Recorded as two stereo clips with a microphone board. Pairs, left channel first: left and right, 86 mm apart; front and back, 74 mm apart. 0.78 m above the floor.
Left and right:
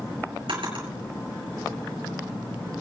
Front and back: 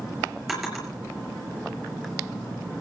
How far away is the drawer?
About 5.5 m.